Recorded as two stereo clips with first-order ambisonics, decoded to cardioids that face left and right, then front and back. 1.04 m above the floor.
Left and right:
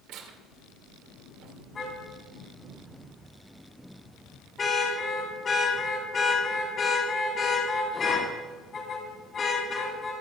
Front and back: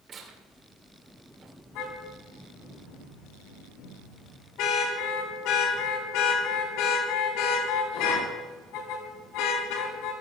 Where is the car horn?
25° left, 4.5 m.